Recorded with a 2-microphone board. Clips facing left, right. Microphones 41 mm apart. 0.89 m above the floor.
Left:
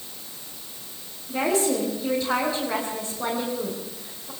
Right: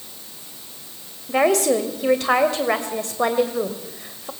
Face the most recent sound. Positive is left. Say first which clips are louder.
# right 6 dB
turn(degrees=-65)  # may be behind; listen again after turning